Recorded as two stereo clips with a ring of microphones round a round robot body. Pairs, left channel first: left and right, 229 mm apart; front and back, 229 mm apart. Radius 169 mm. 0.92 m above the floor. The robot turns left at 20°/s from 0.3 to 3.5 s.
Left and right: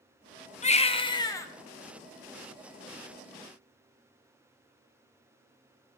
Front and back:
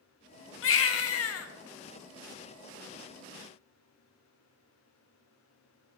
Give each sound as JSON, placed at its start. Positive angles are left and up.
{"t": 0.6, "sound": "a baby crying", "azimuth_deg": 30, "distance_m": 1.1}